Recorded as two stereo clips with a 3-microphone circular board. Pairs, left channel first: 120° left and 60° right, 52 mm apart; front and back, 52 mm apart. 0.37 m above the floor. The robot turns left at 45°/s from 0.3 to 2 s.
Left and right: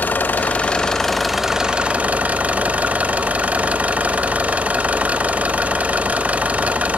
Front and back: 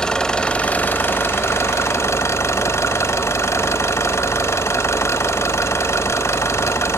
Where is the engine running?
75° left, 0.7 m; by 7.0 s 5° right, 0.7 m.